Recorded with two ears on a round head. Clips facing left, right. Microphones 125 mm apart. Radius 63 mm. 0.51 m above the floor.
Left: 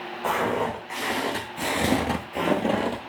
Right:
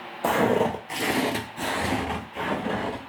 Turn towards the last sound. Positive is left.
turn(degrees=65)  # may be behind; listen again after turning